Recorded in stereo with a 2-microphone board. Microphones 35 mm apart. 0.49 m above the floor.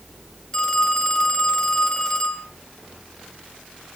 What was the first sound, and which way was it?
A phone ringing, 25° left (ahead or behind).